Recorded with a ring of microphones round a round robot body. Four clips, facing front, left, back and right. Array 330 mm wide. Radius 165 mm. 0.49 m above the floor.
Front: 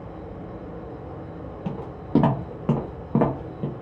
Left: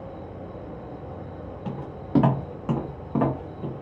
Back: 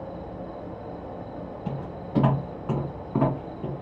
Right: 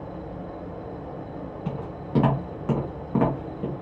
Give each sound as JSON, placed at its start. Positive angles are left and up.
{"t": 0.0, "sound": "an insect", "azimuth_deg": -145, "distance_m": 1.0}
{"t": 1.6, "sound": "footsteps", "azimuth_deg": 25, "distance_m": 1.9}